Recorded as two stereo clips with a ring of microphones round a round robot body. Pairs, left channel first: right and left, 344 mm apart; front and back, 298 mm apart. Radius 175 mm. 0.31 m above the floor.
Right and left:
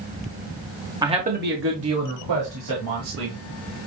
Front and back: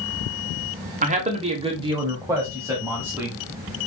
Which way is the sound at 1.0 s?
155° left.